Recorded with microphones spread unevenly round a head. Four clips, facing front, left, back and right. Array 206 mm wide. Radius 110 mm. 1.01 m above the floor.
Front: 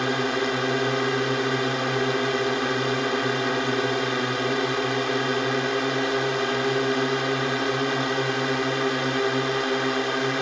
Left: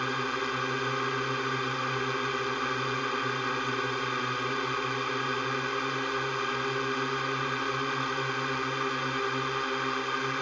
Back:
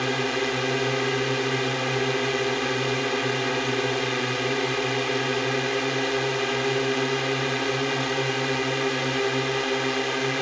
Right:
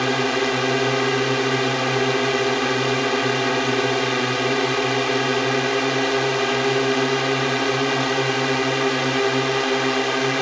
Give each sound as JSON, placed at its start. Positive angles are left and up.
{"t": 0.0, "sound": "a drone", "azimuth_deg": -60}